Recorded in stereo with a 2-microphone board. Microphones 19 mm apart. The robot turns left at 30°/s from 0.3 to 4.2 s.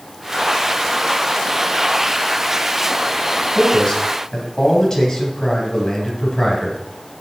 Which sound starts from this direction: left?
A man speaking, at 3.5 s.